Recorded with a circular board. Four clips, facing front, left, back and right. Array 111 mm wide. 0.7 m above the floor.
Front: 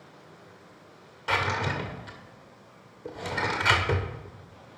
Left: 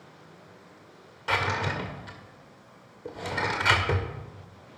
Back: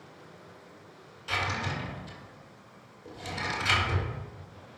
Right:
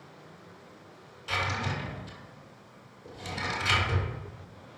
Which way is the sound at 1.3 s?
45° left.